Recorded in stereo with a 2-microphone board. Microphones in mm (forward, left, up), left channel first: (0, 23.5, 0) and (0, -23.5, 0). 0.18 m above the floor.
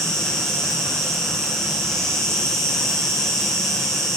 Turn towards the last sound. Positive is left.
turn(degrees=10)  # may be behind; listen again after turning